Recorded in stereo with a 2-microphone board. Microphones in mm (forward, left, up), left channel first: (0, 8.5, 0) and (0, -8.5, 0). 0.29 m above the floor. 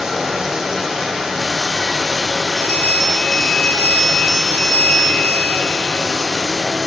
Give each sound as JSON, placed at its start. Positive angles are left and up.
{"t": 0.0, "sound": "running water", "side_deg": -35, "distance_m": 4.0}
{"t": 2.6, "sound": "a bell", "side_deg": 60, "distance_m": 2.0}